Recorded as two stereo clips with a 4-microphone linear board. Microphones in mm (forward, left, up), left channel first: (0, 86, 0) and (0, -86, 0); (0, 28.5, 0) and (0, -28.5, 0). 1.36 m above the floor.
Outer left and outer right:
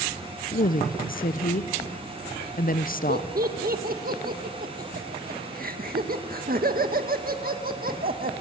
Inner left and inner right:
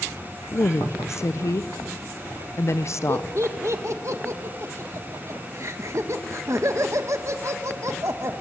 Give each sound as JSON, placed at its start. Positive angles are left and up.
{"t": 0.5, "sound": "a woman speaking", "side_deg": 55, "distance_m": 0.8}
{"t": 3.1, "sound": "laughter", "side_deg": -60, "distance_m": 1.8}